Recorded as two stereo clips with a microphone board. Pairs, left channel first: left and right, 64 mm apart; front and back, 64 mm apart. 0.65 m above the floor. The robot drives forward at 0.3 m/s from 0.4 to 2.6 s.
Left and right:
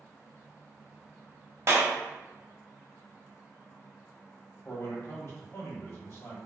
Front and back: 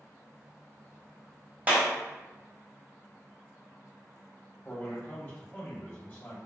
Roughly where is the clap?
Behind right.